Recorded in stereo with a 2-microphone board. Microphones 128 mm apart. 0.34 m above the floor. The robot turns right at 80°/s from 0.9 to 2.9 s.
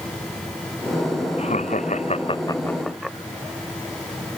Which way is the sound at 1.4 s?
60° left (ahead or behind).